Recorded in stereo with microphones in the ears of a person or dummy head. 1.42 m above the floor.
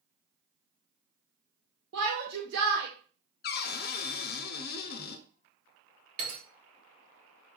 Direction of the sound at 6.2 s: 60° right (ahead or behind).